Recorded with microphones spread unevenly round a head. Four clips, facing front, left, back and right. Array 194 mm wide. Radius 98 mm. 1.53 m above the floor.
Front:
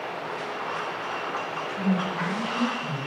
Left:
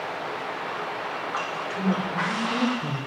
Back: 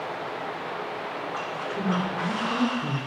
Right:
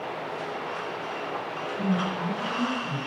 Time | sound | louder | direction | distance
1.7 | a woman speaking | even, front 1 dB | 145° left | 4.5 m